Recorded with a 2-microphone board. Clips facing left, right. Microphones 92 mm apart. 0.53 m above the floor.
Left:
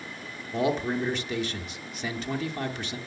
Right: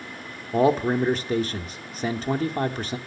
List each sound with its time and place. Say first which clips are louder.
0.5 s a man speaking: right 6 dB; 40° right (ahead or behind), 1.0 m